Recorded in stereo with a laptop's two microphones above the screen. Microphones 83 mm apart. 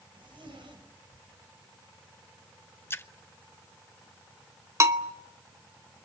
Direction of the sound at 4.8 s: 35° right (ahead or behind).